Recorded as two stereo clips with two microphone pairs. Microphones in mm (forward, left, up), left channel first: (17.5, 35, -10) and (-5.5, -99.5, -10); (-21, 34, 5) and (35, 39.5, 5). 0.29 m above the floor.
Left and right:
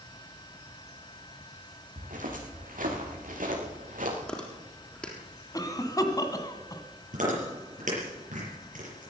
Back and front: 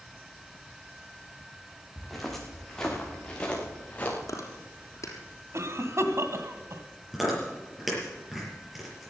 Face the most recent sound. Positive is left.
turn(degrees=-80)